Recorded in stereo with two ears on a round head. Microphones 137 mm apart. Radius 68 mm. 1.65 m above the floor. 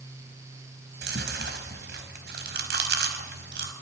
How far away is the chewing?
About 5 m.